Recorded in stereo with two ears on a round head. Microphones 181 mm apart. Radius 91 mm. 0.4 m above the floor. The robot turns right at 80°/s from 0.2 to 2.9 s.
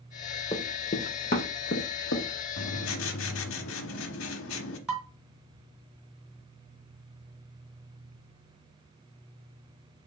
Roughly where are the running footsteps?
Centre.